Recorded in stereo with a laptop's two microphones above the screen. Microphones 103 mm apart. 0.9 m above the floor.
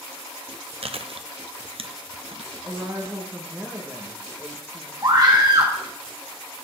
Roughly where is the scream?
Right.